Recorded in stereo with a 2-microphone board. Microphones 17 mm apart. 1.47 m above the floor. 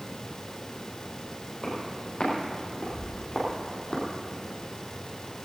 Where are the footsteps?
75° left (ahead or behind), 5.5 m; by 4.0 s 55° left (ahead or behind), 3.5 m.